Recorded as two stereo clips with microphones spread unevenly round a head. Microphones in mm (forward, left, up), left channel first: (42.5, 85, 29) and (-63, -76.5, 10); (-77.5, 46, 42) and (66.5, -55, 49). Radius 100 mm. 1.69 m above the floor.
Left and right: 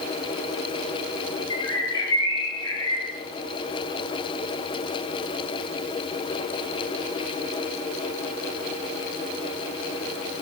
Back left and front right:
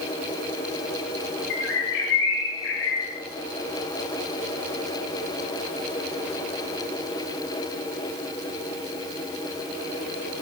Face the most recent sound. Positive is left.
turn(degrees=125)